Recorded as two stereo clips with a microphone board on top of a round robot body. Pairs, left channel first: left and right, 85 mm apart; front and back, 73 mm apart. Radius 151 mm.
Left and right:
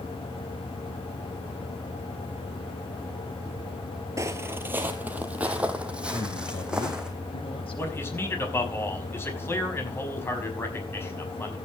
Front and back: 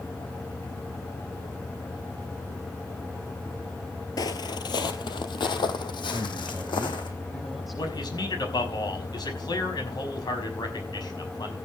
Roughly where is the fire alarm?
No fire alarm in this recording.